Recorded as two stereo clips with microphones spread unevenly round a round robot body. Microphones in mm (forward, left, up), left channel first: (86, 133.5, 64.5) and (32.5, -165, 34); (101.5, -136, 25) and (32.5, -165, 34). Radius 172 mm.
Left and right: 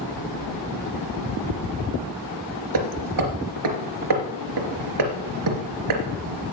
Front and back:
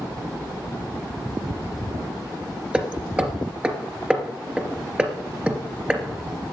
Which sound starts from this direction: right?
Hammering, at 2.7 s.